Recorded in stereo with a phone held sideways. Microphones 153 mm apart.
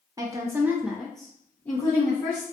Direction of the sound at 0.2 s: 25° right (ahead or behind).